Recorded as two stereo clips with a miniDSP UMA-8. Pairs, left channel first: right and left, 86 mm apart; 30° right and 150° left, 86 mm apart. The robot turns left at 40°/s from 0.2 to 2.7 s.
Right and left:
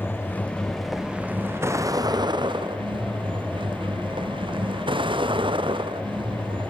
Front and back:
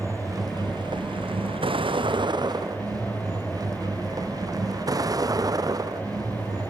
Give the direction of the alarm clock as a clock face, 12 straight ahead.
I don't hear an alarm clock.